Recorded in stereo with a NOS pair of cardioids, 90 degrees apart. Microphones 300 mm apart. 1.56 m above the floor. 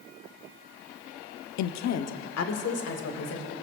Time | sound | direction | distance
1.6 | a woman speaking | 65° left | 0.6 m